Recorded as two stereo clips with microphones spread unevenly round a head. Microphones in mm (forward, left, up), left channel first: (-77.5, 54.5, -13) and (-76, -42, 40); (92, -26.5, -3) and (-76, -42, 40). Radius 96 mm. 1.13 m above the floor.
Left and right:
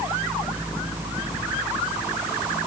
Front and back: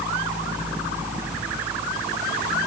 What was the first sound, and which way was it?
Only background noise.